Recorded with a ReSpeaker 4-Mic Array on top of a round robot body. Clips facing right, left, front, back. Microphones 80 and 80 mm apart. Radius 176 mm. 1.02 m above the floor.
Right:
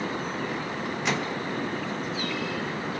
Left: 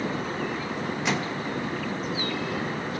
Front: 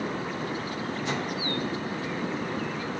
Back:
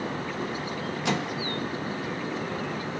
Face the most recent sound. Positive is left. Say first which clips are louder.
# even, back 4 dB
turn(degrees=180)